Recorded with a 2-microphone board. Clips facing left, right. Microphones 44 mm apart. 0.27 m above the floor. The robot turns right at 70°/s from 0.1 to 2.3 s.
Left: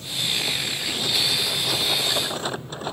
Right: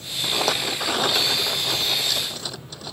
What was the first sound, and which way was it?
A rattle, 110° right.